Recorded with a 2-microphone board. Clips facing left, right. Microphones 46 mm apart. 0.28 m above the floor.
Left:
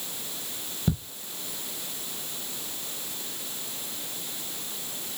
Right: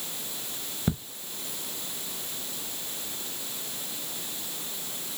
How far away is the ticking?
About 0.6 m.